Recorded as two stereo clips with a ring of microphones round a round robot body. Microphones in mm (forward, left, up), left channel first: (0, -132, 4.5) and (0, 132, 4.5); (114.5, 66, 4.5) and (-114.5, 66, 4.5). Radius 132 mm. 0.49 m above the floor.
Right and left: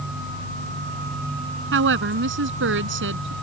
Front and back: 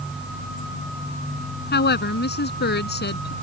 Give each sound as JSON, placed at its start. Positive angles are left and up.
{"t": 1.7, "sound": "a woman speaking", "azimuth_deg": 45}